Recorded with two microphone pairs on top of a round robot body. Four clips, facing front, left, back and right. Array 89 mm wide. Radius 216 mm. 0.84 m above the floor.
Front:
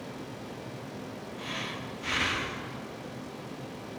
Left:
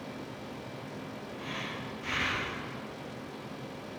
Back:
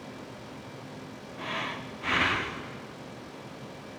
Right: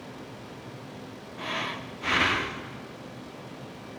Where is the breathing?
120° right, 1.2 m.